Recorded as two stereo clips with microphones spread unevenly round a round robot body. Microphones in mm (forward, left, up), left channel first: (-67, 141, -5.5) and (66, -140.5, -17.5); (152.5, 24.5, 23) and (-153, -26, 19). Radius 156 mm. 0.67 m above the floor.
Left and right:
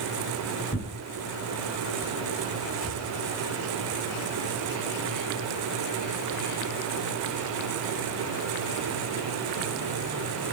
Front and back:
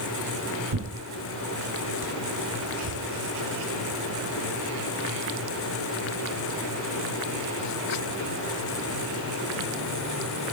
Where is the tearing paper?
Straight behind, 2.5 m.